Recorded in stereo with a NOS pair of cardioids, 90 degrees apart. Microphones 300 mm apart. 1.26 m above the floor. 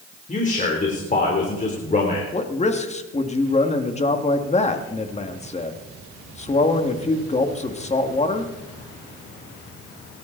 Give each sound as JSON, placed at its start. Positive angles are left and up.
{"t": 0.3, "sound": "a man speaking", "azimuth_deg": 25, "distance_m": 3.5}
{"t": 2.3, "sound": "a man speaking", "azimuth_deg": 25, "distance_m": 2.0}